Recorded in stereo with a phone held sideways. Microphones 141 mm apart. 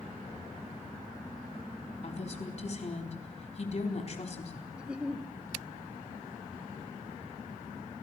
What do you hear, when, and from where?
2.0 s a woman speaking: 55° left (ahead or behind), 4 m
4.8 s a giggle: 10° right (ahead or behind), 1.3 m